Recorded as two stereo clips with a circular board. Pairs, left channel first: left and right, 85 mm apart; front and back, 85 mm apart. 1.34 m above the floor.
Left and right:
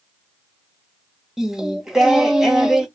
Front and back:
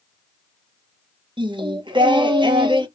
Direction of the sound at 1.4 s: 175° right.